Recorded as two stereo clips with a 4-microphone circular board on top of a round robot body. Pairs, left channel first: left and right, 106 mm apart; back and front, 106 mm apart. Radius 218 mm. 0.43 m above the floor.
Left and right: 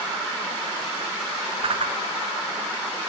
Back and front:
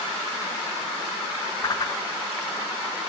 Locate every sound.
1.6 s a whoosh: 125° right, 1.2 m